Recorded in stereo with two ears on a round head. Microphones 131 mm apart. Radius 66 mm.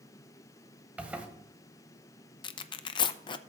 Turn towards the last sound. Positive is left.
turn(degrees=30)  # may be behind; listen again after turning